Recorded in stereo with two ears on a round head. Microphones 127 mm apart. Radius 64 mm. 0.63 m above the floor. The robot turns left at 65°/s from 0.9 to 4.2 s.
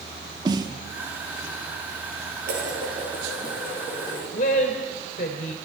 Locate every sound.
0.5 s a snare drum: 30° right (ahead or behind), 1.2 m
2.5 s dishes clattering: 105° right, 10 m; by 4.2 s 140° left, 10 m
4.3 s a woman speaking: 60° left (ahead or behind), 2.5 m